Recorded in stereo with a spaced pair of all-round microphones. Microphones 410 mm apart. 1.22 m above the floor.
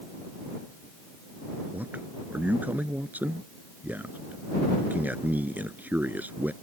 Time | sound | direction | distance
1.7 | a man speaking | 5° right (ahead or behind) | ?